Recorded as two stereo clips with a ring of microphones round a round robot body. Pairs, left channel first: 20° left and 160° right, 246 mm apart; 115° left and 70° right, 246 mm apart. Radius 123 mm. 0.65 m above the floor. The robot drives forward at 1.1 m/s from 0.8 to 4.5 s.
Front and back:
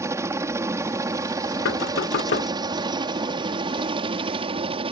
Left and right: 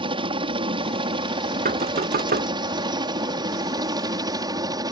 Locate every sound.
0.0 s a helicopter: 95° right; by 4.9 s 120° right
1.6 s knocking: 10° right; by 2.5 s 20° right